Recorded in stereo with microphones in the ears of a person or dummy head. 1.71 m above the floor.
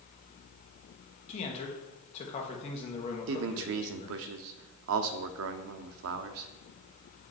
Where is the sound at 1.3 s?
35° left (ahead or behind), 1.5 m.